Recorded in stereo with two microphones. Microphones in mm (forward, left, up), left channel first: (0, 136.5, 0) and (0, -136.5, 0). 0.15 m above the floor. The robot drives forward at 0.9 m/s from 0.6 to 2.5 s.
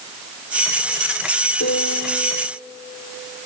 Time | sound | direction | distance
1.6 | a piano | 70° left (ahead or behind) | 2.5 m